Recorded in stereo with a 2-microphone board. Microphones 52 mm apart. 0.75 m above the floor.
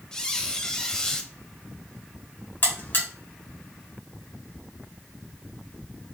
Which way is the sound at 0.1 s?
15° left (ahead or behind).